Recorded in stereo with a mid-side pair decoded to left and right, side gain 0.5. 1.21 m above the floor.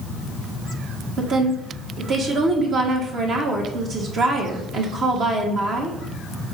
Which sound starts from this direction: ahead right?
A woman speaking, at 1.2 s.